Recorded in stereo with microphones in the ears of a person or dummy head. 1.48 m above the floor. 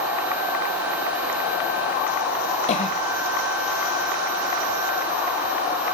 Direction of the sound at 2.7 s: 45° left (ahead or behind).